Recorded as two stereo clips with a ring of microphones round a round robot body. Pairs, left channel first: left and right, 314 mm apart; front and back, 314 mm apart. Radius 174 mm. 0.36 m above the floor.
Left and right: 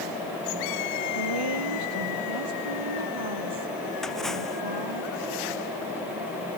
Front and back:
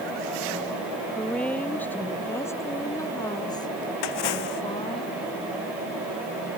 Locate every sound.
1.1 s a woman speaking: 85° right; by 5.0 s 75° right
4.0 s a splash: straight ahead